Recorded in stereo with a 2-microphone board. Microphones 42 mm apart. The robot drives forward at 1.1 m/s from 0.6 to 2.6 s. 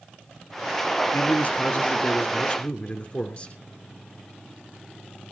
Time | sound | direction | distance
1.1 | a man speaking | 45° left (ahead or behind) | 1.9 m